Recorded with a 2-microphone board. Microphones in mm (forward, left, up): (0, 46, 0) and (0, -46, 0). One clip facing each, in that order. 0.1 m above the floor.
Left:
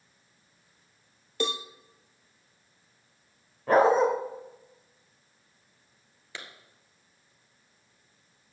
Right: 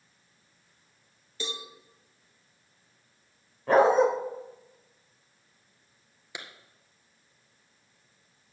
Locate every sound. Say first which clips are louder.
1.4 s a cowbell: left 8 dB; 60° left (ahead or behind), 0.9 m
3.7 s a dog barking: right 1 dB; centre (ahead or behind), 2 m
6.3 s a clap: right 1 dB; 15° right (ahead or behind), 1.7 m